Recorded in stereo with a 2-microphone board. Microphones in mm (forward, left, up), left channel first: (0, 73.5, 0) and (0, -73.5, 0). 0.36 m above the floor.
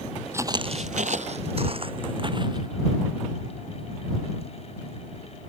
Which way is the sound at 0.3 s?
20° right (ahead or behind).